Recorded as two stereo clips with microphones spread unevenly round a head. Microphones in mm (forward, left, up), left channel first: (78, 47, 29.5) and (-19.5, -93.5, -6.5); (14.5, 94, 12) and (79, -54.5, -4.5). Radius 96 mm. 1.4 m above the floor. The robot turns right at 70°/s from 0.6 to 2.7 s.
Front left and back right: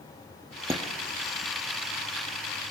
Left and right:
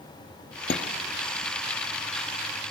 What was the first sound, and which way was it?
Dishes clattering, 155° left.